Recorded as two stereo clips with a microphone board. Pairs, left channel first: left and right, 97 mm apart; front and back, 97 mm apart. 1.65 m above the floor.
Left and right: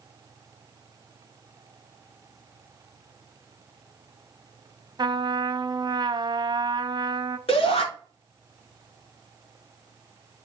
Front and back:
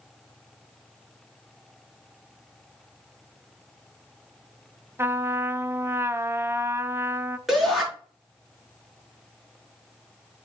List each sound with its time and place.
5.0 s a trumpet: 120° right, 0.6 m
7.5 s a shout: 90° left, 4.5 m